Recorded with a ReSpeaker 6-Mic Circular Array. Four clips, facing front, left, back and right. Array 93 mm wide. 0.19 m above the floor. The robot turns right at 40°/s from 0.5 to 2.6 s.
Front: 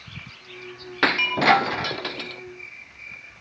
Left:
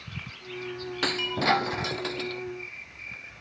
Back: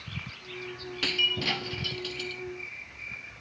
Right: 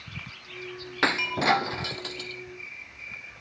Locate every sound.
1.0 s breaking glass: 20° right; by 2.4 s 35° left